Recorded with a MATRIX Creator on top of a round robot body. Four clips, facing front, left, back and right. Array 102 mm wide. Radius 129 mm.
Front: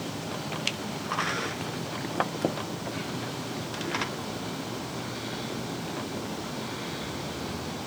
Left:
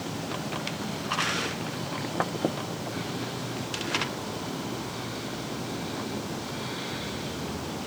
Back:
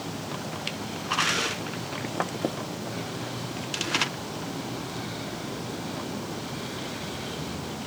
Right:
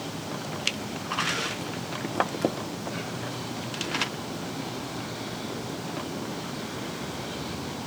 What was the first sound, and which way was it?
Only background noise.